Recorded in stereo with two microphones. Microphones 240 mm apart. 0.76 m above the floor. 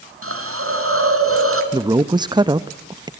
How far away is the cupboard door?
No cupboard door in this recording.